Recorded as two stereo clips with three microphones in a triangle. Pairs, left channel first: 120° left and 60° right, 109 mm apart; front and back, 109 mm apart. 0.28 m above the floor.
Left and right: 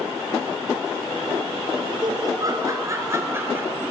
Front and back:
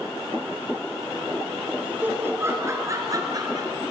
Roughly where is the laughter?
Right.